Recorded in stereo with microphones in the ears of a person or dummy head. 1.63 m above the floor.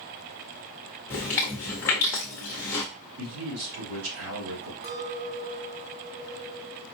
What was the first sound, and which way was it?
Chewing, 15° left (ahead or behind).